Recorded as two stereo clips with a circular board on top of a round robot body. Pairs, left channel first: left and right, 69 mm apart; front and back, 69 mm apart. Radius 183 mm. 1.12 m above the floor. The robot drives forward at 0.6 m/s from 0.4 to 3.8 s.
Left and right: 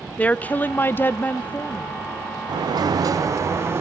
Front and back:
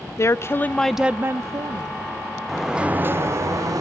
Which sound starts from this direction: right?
A sliding door, at 2.5 s.